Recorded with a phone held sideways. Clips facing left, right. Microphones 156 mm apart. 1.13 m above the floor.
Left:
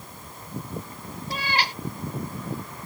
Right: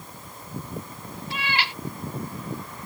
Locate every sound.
1.3 s a cat meowing: 40° left (ahead or behind)